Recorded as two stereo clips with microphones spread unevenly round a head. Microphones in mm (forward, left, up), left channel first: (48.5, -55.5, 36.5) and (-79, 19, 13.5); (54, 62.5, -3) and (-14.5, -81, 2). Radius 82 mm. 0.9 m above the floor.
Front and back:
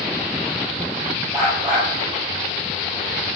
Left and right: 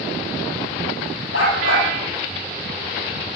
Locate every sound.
1.3 s a dog barking: 80° left, 9.5 m